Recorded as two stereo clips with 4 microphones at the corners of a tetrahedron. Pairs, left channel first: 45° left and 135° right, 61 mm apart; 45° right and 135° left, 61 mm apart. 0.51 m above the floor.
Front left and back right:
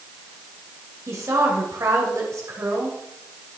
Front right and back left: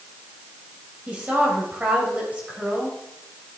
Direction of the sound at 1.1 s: 160° right.